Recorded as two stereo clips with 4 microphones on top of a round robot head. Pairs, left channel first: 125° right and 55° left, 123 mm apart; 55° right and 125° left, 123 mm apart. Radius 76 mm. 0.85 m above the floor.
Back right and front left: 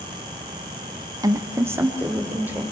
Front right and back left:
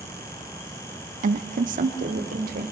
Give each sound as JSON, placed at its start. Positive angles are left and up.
{"t": 1.2, "sound": "a woman speaking", "azimuth_deg": 115, "distance_m": 1.0}